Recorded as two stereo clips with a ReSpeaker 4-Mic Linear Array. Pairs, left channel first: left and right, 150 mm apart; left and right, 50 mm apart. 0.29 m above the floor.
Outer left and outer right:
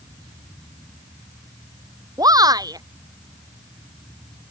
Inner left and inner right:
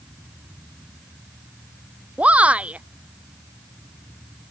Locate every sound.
2.2 s a shout: 25° right (ahead or behind)